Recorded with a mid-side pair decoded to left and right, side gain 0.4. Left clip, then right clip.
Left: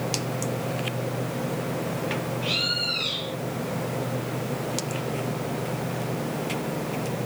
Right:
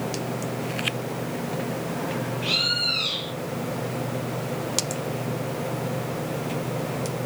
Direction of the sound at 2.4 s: 30° right.